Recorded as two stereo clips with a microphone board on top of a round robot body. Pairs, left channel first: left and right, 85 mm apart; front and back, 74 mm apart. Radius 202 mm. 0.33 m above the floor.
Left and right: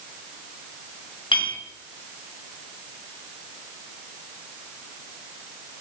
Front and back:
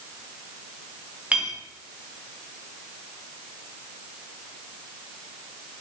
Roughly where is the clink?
Left.